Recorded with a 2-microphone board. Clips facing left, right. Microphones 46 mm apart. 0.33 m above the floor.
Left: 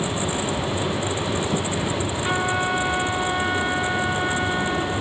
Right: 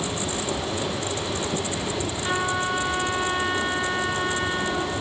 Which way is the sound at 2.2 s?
Centre (ahead or behind).